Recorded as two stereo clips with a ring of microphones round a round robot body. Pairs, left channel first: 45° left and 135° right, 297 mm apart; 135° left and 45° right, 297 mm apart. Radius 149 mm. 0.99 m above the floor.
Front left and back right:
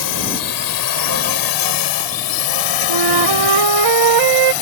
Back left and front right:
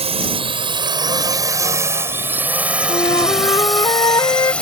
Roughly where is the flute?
Behind right.